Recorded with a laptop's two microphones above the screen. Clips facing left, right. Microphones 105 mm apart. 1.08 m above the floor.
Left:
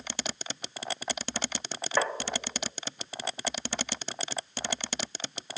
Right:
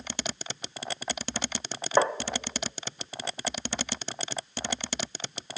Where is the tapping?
25° right (ahead or behind), 0.8 m.